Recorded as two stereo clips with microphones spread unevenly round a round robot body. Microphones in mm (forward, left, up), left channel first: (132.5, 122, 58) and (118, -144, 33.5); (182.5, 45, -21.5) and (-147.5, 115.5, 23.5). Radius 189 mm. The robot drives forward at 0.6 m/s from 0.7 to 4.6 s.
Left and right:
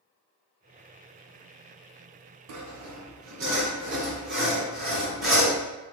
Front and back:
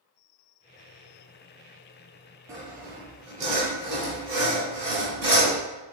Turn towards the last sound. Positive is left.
turn(degrees=-155)